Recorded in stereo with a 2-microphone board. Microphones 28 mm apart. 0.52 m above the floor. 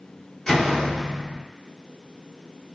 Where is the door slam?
15° left (ahead or behind), 0.7 m.